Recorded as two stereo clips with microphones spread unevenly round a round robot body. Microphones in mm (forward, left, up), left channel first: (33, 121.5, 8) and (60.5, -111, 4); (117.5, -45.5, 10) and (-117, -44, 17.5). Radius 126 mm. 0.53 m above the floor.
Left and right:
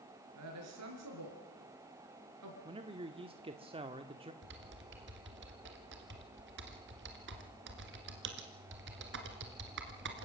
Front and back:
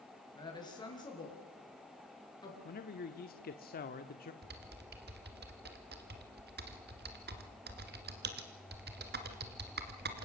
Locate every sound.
0.3 s a woman speaking: 75° right, 6.5 m
2.6 s a man speaking: 25° right, 1.1 m
4.4 s typing on a keyboard: 135° right, 2 m